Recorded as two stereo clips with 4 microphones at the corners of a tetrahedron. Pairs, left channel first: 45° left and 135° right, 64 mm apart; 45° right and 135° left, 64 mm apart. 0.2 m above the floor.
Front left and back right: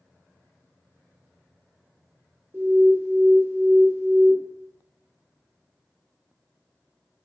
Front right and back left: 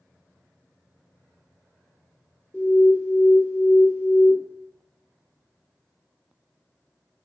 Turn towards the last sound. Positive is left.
turn(degrees=-95)